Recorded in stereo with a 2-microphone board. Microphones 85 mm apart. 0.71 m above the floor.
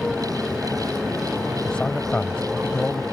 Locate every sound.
0.0 s a motorcycle: 5° left (ahead or behind)
1.6 s a man speaking: 10° left (ahead or behind)